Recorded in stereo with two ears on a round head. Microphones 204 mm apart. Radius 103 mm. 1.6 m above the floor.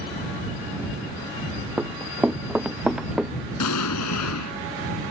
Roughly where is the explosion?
Left.